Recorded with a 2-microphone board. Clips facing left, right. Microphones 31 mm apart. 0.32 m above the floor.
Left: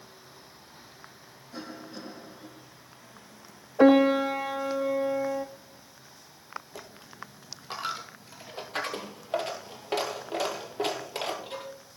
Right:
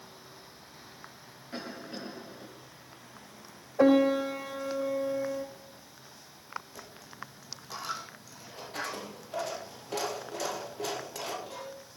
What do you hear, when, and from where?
1.5 s a cough: 40° right (ahead or behind), 7 m
3.8 s a piano: 25° left (ahead or behind), 0.5 m
6.8 s a dropped coin: 45° left (ahead or behind), 2 m